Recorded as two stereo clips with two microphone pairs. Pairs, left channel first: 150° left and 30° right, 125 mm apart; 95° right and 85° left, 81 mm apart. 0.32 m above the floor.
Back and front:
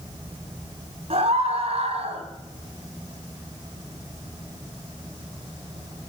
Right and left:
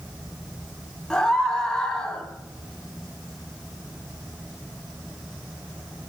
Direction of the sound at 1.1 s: 15° right.